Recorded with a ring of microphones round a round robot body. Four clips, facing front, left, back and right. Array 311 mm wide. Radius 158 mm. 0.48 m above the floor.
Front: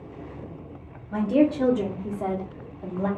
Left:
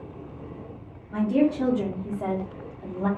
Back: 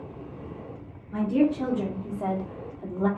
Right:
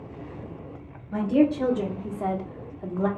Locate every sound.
1.1 s a woman speaking: straight ahead, 1.2 m; by 3.1 s 135° right, 1.1 m